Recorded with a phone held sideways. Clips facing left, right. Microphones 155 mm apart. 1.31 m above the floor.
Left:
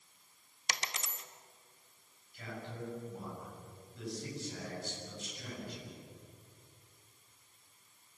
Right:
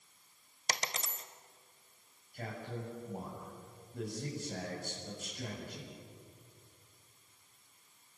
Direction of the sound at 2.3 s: 50° right (ahead or behind).